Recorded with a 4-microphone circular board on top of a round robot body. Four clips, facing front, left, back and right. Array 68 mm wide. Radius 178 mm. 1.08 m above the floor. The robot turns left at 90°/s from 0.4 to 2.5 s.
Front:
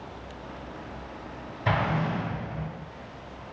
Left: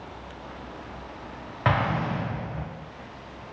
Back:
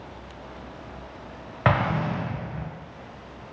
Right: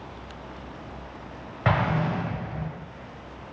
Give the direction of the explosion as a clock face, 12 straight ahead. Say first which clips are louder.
Even, back 3 dB; 6 o'clock.